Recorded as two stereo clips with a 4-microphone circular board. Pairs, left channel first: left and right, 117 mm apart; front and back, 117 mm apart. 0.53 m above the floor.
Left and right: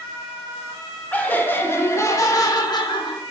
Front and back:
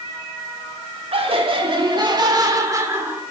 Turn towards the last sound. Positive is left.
turn(degrees=115)